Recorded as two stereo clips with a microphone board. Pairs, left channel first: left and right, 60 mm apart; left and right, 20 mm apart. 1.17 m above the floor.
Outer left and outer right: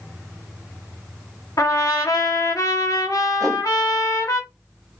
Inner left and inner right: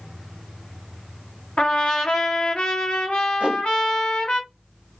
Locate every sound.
1.6 s a trumpet: 70° left (ahead or behind), 0.9 m
3.4 s a whoosh: 80° right, 0.9 m